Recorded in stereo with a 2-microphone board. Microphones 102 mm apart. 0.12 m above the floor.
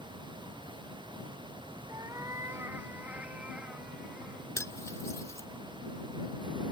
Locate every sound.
1.9 s a cat meowing: 35° right (ahead or behind); by 4.5 s 5° right (ahead or behind)
4.6 s cutlery clinking: 30° left (ahead or behind)